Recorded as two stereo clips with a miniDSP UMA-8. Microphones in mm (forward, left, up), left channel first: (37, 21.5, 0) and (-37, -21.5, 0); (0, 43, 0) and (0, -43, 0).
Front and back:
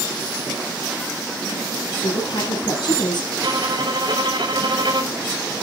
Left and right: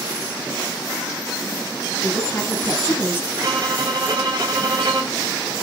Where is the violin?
130° right, 8.5 m.